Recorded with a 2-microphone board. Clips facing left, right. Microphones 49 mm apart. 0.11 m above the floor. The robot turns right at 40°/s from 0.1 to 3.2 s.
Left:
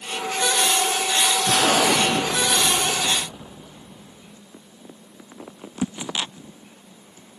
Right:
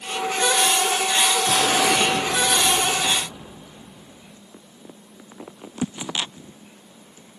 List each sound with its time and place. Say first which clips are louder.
1.5 s an explosion: left 3 dB; 105° left, 2.5 m; by 4.4 s 175° left, 2.5 m